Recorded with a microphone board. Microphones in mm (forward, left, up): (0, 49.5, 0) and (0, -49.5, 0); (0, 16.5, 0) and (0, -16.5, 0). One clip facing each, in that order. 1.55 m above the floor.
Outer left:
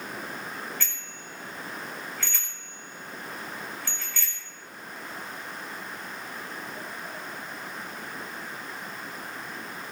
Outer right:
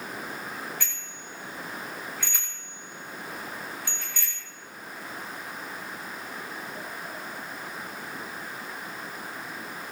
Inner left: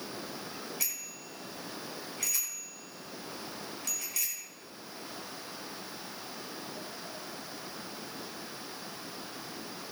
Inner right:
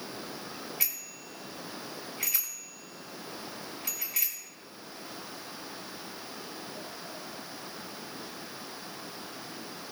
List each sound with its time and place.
0.8 s a bicycle bell: 15° right (ahead or behind), 5.5 m